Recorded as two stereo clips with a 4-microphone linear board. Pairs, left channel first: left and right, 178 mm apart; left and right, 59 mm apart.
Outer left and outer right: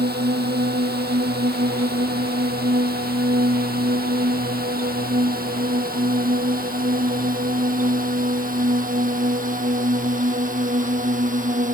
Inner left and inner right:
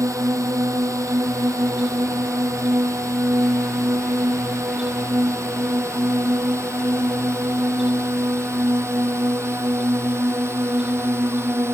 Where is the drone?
65° right (ahead or behind); by 11.7 s 45° right (ahead or behind).